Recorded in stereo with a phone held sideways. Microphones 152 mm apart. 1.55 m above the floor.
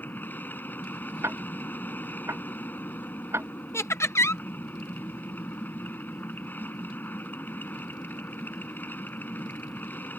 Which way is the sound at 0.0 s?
10° left (ahead or behind).